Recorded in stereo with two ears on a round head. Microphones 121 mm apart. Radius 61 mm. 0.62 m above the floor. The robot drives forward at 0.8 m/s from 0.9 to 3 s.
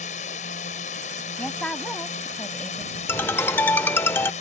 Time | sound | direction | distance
0.0 | a drone | 60° left (ahead or behind) | ?
1.4 | a woman speaking | 5° left (ahead or behind) | ?
3.1 | a ringtone | 15° left (ahead or behind) | ?